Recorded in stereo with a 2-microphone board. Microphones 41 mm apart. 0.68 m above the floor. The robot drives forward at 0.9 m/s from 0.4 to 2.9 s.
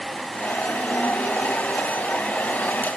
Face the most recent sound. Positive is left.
No sound to turn to.